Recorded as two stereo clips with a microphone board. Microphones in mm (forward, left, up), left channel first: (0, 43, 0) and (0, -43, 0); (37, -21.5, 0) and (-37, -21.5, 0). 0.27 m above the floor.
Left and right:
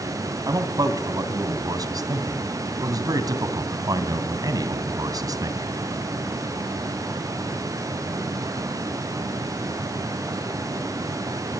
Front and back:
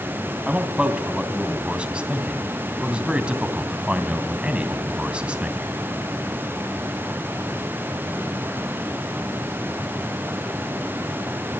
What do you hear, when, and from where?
0.5 s a man speaking: 110° right, 2.5 m